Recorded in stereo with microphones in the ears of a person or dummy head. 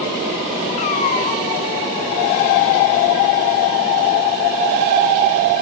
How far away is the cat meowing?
About 1.0 m.